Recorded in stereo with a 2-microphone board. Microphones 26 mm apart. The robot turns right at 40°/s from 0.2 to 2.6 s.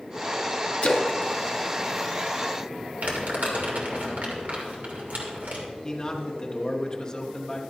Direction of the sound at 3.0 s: 75° right (ahead or behind).